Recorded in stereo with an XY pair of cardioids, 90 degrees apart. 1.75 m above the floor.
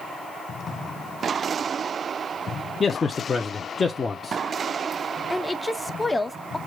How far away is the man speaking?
About 0.7 m.